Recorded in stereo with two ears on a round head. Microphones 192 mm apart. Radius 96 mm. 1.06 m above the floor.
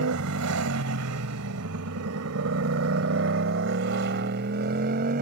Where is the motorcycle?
80° right; by 5.2 s 45° right (ahead or behind).